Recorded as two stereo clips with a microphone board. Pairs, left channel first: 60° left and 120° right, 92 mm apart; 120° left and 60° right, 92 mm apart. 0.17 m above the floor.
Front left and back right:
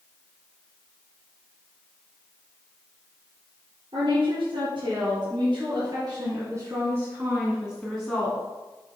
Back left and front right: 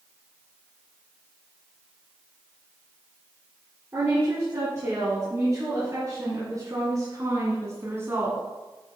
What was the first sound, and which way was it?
A woman speaking, 115° right.